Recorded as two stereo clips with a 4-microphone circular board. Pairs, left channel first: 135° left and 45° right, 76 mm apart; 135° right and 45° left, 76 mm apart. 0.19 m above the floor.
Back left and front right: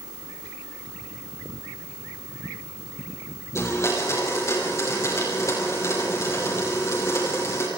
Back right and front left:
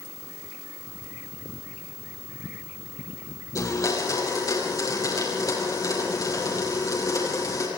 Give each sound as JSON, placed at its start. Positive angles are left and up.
{"t": 3.5, "sound": "a blender", "azimuth_deg": -175, "distance_m": 7.0}